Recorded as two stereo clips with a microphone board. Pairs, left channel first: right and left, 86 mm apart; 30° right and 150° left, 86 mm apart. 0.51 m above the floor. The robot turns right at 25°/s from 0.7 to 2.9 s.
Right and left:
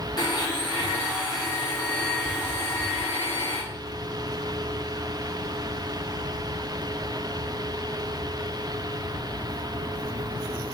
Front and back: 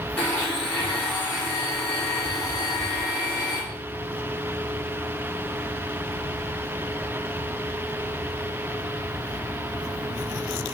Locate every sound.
0.2 s a blender: 100° right, 1.2 m; by 3.6 s 45° right, 1.2 m